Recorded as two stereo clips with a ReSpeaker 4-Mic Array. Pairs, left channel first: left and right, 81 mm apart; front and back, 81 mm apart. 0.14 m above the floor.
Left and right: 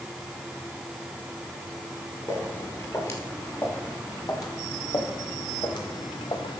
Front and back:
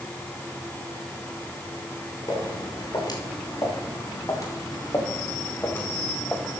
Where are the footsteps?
35° left, 4.5 m; by 6.6 s 85° left, 1.6 m.